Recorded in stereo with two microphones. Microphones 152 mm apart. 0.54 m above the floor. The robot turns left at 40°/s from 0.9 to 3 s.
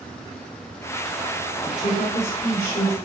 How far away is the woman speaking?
About 1.2 m.